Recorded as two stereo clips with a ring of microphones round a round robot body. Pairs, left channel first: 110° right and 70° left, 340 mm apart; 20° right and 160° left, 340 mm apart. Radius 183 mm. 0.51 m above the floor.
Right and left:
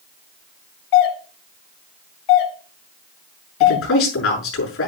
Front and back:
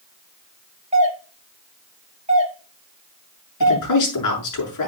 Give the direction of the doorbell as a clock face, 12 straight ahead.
4 o'clock.